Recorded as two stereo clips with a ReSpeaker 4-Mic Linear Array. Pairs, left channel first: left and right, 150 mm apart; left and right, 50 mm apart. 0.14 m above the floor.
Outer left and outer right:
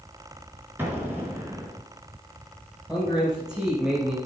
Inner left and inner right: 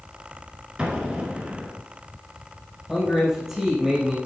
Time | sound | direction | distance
0.8 | an explosion | 15° right (ahead or behind) | 2 m
2.9 | a man speaking | 5° right (ahead or behind) | 4 m